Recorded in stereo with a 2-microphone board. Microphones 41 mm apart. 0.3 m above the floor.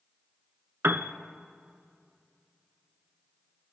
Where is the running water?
I don't hear running water.